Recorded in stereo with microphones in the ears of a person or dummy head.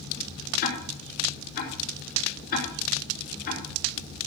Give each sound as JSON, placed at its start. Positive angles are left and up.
{"t": 0.6, "sound": "ticking", "side_deg": 50, "distance_m": 3.0}